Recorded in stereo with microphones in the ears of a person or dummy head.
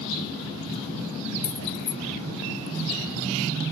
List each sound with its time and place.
1.4 s keys jangling: 15° left (ahead or behind), 1.5 m